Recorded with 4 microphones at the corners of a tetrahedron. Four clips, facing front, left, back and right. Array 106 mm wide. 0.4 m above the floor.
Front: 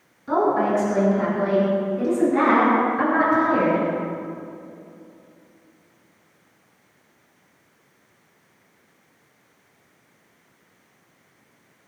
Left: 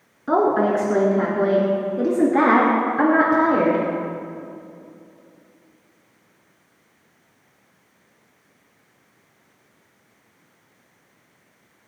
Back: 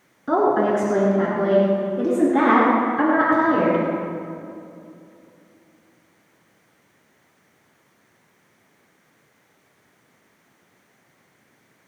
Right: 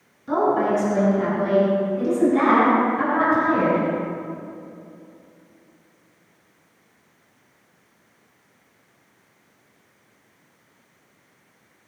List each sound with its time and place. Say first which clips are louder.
0.3 s a woman speaking: left 2 dB, back 2 dB; 125° left, 4 m; by 3.8 s 115° left, 6.5 m